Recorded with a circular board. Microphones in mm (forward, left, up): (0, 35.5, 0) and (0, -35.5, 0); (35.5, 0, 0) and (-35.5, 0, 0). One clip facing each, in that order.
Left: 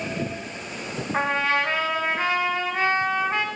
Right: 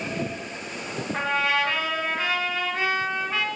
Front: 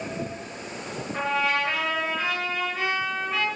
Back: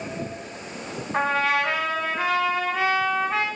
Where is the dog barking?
No dog barking in this recording.